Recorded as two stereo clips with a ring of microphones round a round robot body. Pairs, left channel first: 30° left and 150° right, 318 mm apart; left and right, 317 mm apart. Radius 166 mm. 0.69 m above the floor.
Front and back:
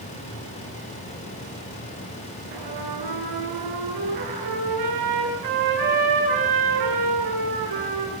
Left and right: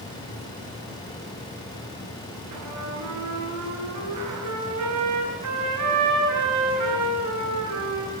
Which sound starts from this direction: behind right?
A trumpet, at 2.5 s.